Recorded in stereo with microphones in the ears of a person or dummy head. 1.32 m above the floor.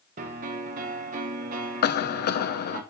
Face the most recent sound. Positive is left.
turn(degrees=50)  # may be behind; listen again after turning